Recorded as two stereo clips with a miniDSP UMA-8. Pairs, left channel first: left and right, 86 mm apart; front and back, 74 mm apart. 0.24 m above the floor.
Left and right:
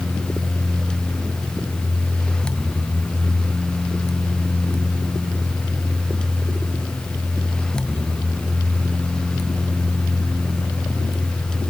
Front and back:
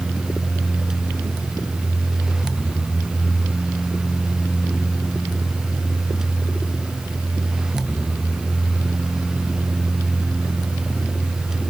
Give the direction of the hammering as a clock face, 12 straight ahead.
No hammering in this recording.